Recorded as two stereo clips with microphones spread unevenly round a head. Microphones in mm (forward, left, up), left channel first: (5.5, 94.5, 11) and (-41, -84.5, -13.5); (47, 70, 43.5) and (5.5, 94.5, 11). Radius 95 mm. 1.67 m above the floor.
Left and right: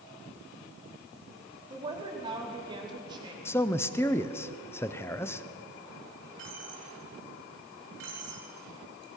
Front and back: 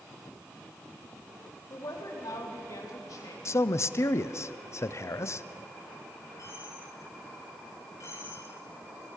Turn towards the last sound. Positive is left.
turn(degrees=-75)